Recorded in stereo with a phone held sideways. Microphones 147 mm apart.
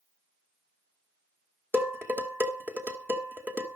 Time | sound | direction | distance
1.7 | dishes clattering | 15° right (ahead or behind) | 2.0 m